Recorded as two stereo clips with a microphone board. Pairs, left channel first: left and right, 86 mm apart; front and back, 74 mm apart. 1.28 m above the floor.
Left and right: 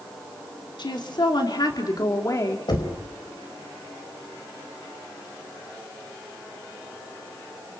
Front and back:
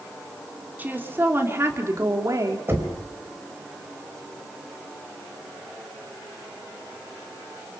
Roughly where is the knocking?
Behind left.